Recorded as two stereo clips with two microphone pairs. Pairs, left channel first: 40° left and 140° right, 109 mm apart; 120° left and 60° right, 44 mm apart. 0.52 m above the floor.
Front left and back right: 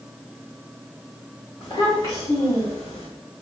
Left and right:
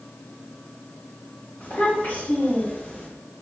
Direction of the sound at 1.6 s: 75° left.